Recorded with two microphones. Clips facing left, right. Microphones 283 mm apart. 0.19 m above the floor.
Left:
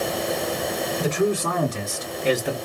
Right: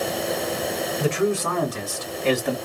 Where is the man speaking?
50° left (ahead or behind), 2 m; by 2.5 s 5° left (ahead or behind), 2.0 m.